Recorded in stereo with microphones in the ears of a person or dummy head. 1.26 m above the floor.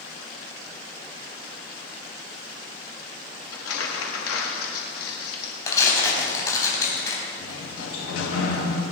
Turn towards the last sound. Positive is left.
turn(degrees=80)